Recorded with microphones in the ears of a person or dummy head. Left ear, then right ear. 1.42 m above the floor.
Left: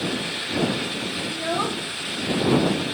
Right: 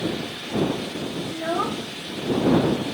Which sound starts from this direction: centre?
A child speaking, at 1.3 s.